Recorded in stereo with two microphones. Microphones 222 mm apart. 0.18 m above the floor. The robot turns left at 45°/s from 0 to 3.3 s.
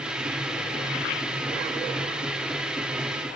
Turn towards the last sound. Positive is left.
No sound to turn to.